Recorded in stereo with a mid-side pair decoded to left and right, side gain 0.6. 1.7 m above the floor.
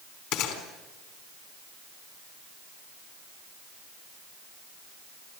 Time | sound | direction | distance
0.3 | a gunshot | 65° left | 4 m